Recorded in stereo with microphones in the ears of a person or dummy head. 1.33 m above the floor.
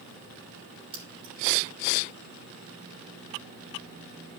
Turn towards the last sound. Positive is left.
turn(degrees=-25)  # may be behind; listen again after turning